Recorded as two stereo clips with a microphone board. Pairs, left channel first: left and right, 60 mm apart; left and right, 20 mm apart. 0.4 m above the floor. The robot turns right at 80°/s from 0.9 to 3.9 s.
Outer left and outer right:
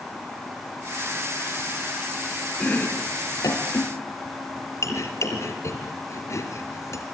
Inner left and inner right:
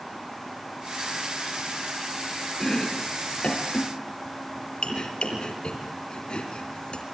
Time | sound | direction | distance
2.6 | chopping | 20° left (ahead or behind) | 4 m